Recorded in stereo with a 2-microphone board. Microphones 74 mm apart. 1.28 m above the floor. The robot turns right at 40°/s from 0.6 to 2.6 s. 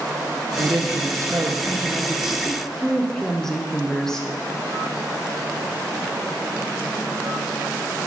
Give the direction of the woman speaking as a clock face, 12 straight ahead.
2 o'clock.